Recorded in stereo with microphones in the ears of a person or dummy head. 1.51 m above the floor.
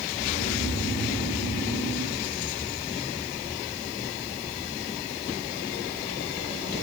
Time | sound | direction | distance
0.1 | snoring | 70° left (ahead or behind) | 5 m